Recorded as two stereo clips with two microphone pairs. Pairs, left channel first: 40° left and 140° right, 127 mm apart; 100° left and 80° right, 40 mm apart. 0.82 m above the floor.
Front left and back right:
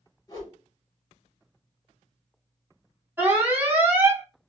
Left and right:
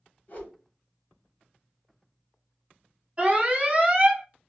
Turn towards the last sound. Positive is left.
turn(degrees=-85)